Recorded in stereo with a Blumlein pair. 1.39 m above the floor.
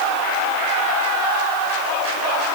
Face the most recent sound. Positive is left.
No sound to turn to.